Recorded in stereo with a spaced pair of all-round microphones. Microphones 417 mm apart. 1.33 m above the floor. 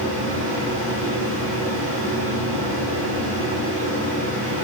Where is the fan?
65° left (ahead or behind), 7.5 m.